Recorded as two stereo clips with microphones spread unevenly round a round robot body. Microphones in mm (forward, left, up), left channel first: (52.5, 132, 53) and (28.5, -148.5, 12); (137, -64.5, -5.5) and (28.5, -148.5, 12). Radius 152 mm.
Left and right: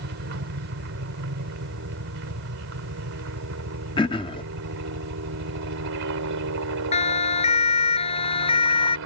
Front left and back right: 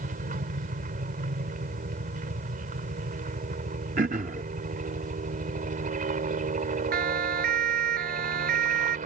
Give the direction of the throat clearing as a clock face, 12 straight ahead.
7 o'clock.